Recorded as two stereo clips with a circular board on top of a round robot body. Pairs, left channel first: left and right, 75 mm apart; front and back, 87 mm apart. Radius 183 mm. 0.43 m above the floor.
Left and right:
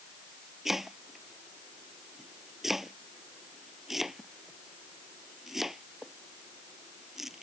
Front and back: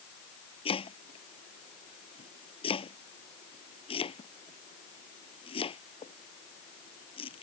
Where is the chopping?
5° right.